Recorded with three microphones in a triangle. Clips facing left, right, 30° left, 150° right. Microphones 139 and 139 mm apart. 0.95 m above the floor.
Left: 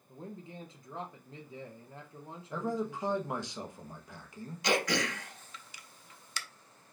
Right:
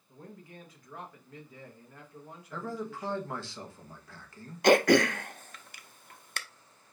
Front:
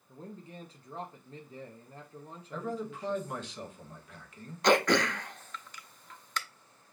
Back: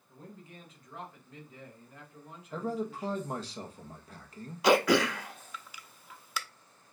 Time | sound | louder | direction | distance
0.1 | a man speaking | left 3 dB, front 4 dB | 50° left | 0.9 m
2.5 | a man speaking | left 3 dB, back 2 dB | 160° left | 1.0 m
4.6 | throat clearing | right 10 dB, back 1 dB | 65° right | 0.5 m